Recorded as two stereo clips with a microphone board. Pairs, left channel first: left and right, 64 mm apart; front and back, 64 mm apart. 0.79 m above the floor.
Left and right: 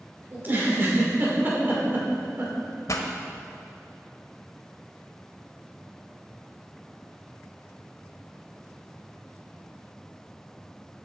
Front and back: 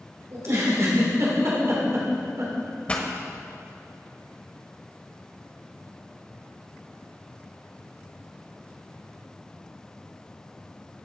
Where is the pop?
70° left, 1.3 m.